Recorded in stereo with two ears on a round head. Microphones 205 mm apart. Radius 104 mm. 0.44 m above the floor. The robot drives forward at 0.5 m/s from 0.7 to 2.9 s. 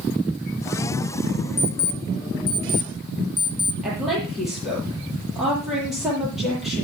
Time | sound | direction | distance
1.6 | an alarm clock | 30° left (ahead or behind) | 1.5 m
3.8 | a woman speaking | centre (ahead or behind) | 10 m